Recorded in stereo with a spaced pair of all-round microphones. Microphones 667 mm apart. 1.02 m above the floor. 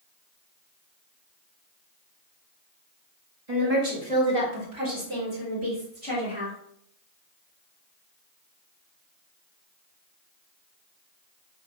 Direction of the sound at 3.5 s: 70° right (ahead or behind).